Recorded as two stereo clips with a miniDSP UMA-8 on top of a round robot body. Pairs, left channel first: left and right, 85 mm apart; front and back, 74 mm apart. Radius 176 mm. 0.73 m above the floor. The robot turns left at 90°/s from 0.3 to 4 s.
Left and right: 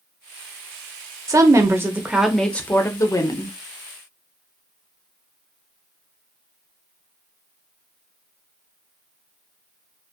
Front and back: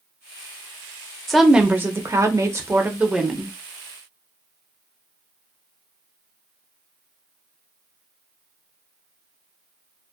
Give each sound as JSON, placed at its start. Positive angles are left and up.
{"t": 1.3, "sound": "a woman speaking", "azimuth_deg": -85, "distance_m": 0.7}